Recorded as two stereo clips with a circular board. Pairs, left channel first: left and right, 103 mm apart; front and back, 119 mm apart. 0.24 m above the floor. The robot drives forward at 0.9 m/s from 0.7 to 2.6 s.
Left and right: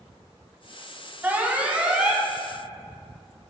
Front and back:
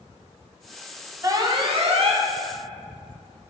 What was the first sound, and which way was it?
An alarm, 150° right.